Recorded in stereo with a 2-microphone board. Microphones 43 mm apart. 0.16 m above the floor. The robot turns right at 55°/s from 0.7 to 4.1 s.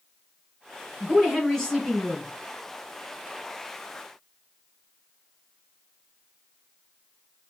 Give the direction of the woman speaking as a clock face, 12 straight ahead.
12 o'clock.